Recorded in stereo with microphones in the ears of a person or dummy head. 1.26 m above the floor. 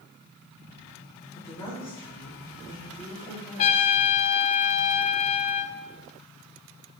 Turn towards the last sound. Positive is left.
turn(degrees=35)  # may be behind; listen again after turning